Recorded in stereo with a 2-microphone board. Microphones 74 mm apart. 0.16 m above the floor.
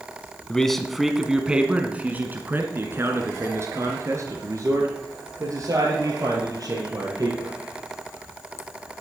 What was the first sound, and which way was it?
A man speaking, 10° left (ahead or behind).